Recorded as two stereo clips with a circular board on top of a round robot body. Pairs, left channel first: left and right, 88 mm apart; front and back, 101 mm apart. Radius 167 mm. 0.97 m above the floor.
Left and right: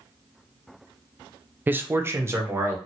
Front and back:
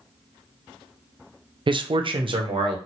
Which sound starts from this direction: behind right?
A man speaking, at 1.7 s.